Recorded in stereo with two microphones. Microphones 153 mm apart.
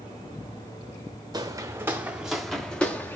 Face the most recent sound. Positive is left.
turn(degrees=15)  # may be behind; listen again after turning